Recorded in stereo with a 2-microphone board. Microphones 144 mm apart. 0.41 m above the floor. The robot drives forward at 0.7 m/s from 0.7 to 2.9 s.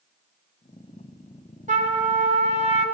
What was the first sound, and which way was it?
A trumpet, 55° right (ahead or behind).